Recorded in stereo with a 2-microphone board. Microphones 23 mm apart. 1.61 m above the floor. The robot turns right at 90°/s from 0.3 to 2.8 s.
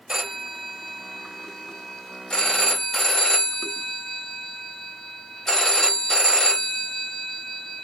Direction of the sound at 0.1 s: 105° right.